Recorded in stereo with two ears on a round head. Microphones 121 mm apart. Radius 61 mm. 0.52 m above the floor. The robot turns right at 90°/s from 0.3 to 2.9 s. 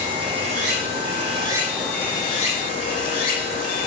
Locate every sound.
0.0 s running water: 135° right, 7.5 m; by 3.9 s 100° left, 7.5 m